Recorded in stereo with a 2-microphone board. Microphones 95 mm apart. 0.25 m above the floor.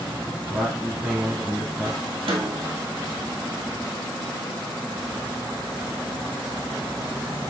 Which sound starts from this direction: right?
A snare drum, at 2.3 s.